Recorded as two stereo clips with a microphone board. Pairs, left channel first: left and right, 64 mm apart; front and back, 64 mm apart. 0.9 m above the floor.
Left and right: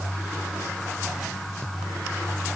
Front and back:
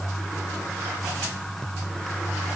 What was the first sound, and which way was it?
Only background noise.